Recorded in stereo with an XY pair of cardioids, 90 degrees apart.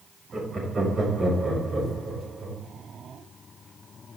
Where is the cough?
No cough in this recording.